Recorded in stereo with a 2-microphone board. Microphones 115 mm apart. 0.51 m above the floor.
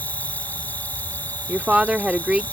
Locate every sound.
0.0 s an insect: 15° left (ahead or behind)
1.5 s a woman speaking: 10° right (ahead or behind)